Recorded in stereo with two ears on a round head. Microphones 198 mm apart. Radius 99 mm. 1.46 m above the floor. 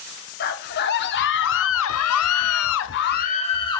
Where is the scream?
45° left (ahead or behind), 1.4 m; by 3.8 s 20° left (ahead or behind), 0.7 m.